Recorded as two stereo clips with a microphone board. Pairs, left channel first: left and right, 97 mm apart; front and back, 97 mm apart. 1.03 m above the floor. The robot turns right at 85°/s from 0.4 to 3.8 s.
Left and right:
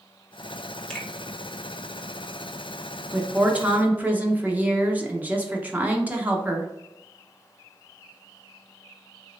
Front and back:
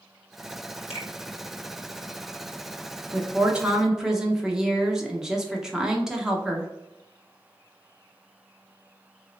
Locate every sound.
0.9 s a finger snap: 5° left, 1.5 m; by 1.1 s 20° left, 1.5 m
3.1 s a woman speaking: 170° right, 0.6 m; by 6.7 s 115° right, 0.6 m